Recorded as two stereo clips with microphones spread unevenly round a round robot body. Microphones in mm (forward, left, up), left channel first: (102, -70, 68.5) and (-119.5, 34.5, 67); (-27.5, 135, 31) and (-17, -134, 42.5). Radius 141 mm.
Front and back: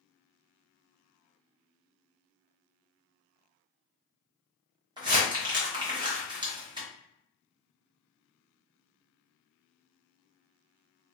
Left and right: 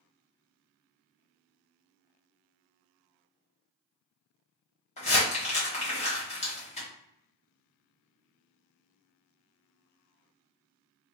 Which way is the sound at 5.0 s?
110° left.